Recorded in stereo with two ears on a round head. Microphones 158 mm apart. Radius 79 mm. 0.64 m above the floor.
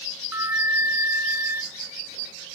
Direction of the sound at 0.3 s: 15° right (ahead or behind).